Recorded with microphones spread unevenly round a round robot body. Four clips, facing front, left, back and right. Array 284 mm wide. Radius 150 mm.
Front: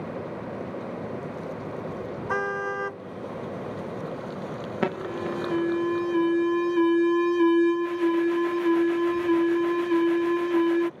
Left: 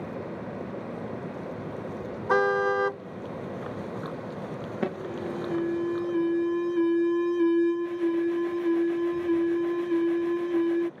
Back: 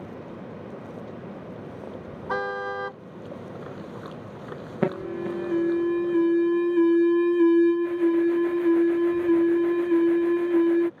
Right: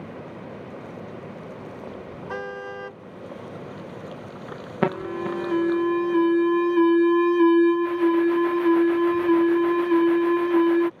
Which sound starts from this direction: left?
A car horn, at 2.3 s.